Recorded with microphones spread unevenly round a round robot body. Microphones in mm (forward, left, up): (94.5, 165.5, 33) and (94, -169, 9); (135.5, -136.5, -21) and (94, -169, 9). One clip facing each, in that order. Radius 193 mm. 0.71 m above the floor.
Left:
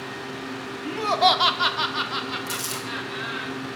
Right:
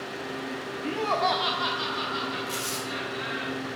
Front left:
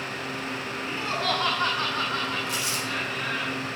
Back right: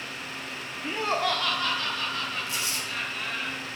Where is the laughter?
175° right, 0.7 m; by 3.5 s 65° left, 4 m.